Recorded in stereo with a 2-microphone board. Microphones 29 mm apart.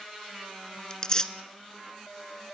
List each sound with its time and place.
0.9 s tearing paper: 25° left (ahead or behind), 0.8 m